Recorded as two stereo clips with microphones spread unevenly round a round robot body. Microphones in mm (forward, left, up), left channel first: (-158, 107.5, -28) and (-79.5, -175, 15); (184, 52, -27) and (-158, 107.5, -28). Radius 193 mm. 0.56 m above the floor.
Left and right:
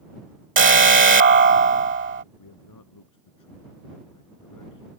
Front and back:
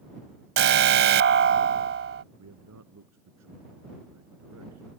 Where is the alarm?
130° right.